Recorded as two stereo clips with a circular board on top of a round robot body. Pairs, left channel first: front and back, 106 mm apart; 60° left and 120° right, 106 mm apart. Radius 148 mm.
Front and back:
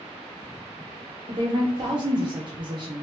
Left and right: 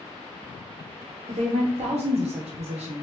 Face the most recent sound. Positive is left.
turn(degrees=-135)